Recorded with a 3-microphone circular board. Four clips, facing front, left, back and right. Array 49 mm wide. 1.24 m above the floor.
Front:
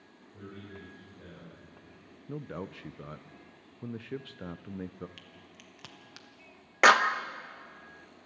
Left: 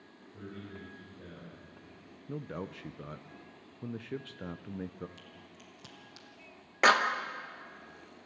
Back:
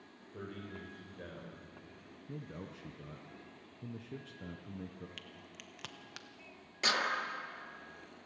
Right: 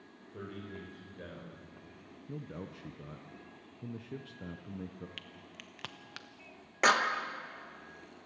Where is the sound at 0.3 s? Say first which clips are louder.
Right 1 dB, back 1 dB; 130° right, 4 m.